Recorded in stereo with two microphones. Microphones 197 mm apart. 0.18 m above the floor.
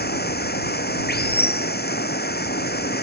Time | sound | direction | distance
0.0 | running water | 55° left (ahead or behind) | ?